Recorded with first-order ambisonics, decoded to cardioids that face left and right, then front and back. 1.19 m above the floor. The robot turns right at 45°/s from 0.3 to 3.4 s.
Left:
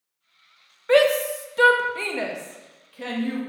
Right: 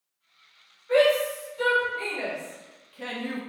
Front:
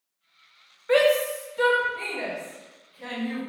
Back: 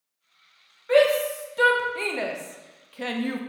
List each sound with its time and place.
0.9 s a shout: 75° left, 0.6 m; by 3.4 s 170° right, 0.6 m